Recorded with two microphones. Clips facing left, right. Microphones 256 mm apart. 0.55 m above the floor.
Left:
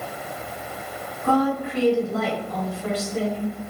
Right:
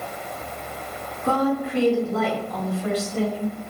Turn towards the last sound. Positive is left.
turn(degrees=-65)  # may be behind; listen again after turning